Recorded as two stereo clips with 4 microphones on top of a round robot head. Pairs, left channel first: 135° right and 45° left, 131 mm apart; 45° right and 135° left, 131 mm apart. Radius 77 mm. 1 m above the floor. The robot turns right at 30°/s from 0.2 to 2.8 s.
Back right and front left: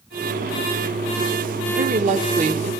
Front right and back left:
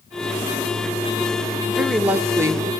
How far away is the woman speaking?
About 1.4 m.